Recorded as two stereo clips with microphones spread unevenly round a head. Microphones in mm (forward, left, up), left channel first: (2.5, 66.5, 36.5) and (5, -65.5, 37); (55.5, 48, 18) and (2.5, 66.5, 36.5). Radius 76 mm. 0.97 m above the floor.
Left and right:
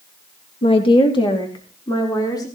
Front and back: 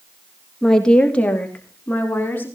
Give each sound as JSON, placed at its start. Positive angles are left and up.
{"t": 0.6, "sound": "a woman speaking", "azimuth_deg": 55, "distance_m": 1.6}